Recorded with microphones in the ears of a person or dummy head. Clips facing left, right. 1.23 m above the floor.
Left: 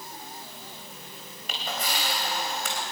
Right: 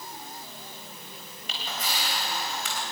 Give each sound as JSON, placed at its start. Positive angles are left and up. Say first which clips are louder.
{"t": 1.5, "sound": "a camera shutter", "louder": "left 3 dB", "side_deg": 45, "distance_m": 3.5}